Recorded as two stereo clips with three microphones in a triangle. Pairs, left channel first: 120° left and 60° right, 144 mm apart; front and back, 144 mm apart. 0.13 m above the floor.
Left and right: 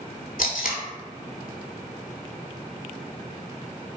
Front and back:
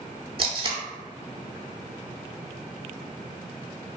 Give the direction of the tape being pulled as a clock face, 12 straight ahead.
8 o'clock.